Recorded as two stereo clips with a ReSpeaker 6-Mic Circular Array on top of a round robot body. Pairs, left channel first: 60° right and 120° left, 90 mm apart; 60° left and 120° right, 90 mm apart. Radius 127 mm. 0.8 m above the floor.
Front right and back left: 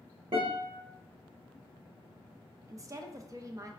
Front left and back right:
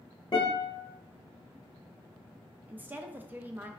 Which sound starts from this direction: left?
A guitar, at 0.3 s.